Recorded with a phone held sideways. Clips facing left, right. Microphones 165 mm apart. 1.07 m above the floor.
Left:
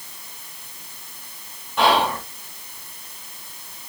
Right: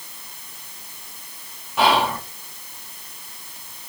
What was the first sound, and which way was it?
Whispering, 5° right (ahead or behind).